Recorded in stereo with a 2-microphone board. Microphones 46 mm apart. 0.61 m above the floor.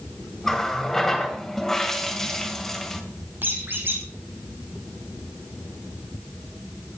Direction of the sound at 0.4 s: 5° left (ahead or behind).